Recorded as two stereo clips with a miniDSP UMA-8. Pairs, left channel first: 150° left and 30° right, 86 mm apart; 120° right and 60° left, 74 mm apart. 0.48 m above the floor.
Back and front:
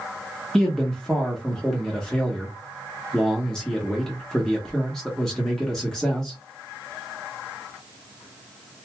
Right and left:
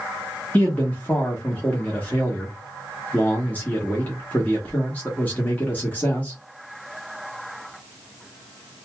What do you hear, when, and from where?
0.5 s a man speaking: 140° right, 1.0 m